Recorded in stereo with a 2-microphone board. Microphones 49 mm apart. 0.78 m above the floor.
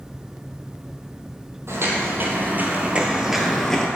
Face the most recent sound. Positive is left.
turn(degrees=15)  # may be behind; listen again after turning